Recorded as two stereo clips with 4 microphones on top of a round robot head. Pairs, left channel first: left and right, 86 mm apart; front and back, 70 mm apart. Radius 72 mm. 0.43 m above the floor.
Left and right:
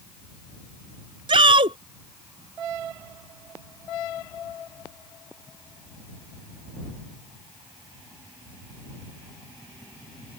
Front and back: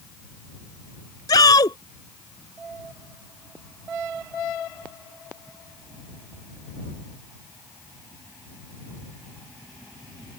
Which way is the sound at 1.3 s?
50° right.